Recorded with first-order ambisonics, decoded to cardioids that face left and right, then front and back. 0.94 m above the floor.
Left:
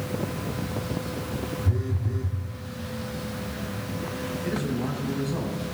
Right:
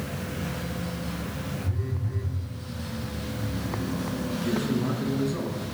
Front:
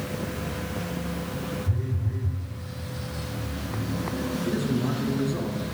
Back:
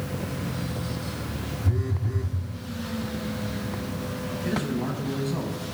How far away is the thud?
No thud in this recording.